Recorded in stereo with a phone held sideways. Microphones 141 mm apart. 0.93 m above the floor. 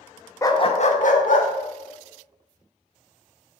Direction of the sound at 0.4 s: 20° left (ahead or behind).